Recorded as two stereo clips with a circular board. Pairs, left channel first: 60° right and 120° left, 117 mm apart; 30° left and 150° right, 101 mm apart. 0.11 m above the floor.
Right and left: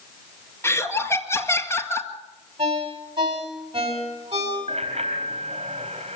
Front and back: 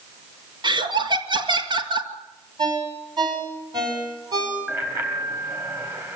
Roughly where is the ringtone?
Behind.